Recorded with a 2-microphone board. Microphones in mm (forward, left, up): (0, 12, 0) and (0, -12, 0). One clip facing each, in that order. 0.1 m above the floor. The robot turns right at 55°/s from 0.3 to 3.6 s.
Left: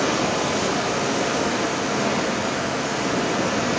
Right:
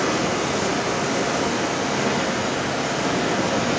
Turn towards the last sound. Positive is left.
turn(degrees=-60)